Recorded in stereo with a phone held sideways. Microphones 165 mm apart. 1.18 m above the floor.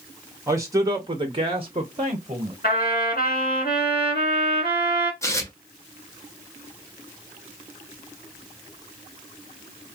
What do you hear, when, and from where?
0.5 s a man speaking: 20° right (ahead or behind), 1.0 m; by 2.5 s 25° right (ahead or behind), 0.9 m
2.6 s a trumpet: 70° left (ahead or behind), 1.4 m
5.2 s tearing paper: 15° left (ahead or behind), 0.6 m